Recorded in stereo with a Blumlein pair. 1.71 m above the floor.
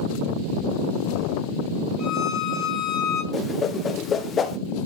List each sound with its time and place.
2.0 s a violin: 25° left, 3 m
3.3 s a whoosh: 25° left, 1.2 m